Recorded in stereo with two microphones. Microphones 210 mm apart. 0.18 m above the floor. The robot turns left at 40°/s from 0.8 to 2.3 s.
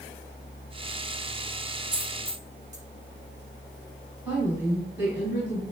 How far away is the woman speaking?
About 1.5 m.